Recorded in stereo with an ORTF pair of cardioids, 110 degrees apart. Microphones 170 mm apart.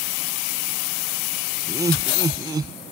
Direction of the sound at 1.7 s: 20° right.